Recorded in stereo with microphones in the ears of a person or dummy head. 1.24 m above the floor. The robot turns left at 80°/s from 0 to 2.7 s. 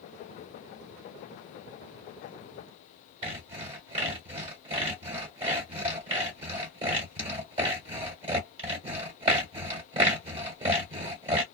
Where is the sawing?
35° right (ahead or behind), 1.3 m.